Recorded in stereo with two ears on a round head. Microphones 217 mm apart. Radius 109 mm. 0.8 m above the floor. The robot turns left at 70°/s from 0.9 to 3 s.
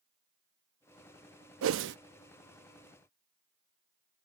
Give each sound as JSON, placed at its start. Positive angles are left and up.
{"t": 1.6, "sound": "a whoosh", "side_deg": -65}